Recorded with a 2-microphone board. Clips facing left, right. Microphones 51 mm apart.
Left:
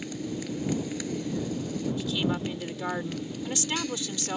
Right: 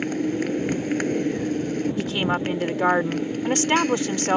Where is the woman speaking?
55° right (ahead or behind).